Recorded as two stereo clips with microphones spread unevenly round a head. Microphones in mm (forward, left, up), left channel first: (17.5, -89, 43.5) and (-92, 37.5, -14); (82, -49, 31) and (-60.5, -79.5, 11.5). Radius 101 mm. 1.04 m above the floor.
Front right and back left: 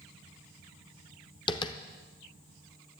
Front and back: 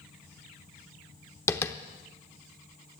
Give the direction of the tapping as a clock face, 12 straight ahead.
1 o'clock.